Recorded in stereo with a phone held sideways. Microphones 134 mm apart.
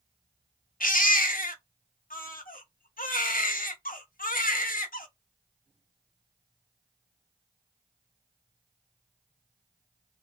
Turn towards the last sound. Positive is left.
turn(degrees=75)  # may be behind; listen again after turning